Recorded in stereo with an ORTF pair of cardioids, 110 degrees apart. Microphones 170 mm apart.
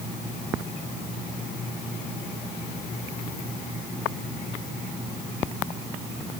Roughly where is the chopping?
No chopping in this recording.